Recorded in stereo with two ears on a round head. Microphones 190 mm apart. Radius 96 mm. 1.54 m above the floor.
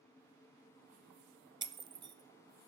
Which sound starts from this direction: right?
Breaking glass, at 1.6 s.